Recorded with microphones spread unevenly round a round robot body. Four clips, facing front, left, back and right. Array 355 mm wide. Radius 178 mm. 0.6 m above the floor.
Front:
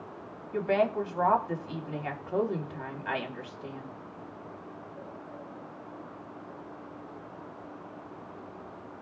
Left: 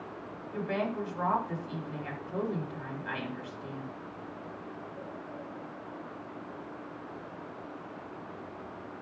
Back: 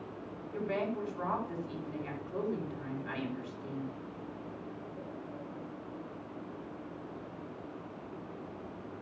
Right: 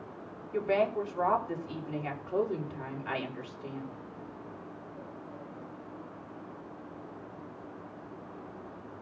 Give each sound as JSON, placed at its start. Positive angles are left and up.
{"t": 0.5, "sound": "a woman speaking", "azimuth_deg": -15, "distance_m": 4.5}